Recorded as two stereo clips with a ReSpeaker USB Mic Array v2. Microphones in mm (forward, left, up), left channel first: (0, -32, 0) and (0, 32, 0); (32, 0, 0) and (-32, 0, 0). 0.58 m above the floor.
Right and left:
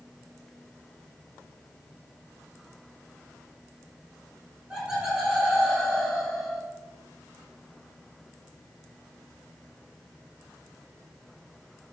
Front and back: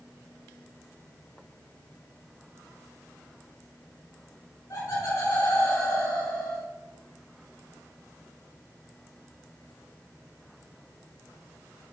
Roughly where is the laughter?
Ahead left.